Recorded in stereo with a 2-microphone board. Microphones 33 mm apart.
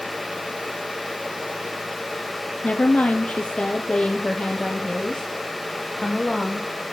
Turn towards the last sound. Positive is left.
turn(degrees=10)  # may be behind; listen again after turning